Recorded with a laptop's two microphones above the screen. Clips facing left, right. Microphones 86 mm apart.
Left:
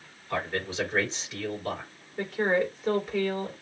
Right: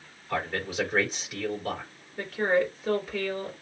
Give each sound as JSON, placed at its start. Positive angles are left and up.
{"t": 0.3, "sound": "a man speaking", "side_deg": -10, "distance_m": 4.0}
{"t": 2.2, "sound": "a woman speaking", "side_deg": 0, "distance_m": 3.0}